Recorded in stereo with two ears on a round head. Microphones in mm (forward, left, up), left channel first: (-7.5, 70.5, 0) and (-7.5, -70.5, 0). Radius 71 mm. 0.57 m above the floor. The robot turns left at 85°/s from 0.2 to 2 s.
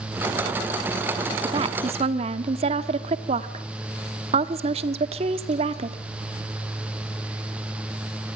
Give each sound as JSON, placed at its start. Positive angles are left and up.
{"t": 1.4, "sound": "a woman speaking", "azimuth_deg": -45, "distance_m": 1.3}